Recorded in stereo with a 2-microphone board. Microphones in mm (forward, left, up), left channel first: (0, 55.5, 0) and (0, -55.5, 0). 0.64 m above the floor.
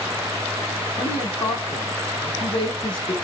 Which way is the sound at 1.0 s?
45° left (ahead or behind).